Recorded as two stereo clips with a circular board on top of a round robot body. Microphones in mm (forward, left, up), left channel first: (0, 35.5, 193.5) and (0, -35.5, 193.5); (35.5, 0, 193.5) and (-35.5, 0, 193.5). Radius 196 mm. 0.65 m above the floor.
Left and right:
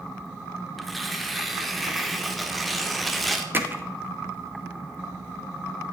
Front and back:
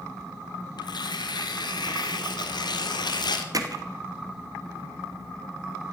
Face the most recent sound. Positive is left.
turn(degrees=-150)